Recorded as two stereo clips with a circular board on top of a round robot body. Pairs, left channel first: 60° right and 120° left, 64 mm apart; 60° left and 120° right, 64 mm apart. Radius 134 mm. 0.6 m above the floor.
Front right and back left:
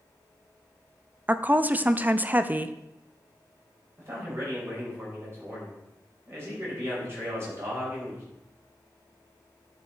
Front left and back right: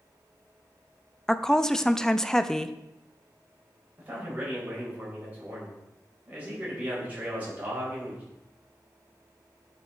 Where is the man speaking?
175° left, 4 m.